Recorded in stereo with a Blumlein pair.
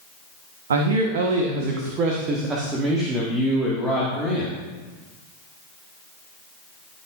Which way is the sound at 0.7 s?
65° right.